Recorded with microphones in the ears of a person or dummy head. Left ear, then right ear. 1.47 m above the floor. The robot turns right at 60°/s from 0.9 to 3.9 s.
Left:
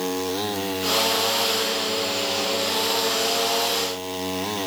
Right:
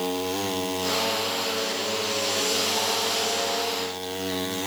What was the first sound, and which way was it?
Only background noise.